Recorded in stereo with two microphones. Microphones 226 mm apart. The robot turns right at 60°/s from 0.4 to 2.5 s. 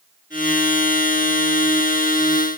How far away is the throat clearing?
I don't hear throat clearing.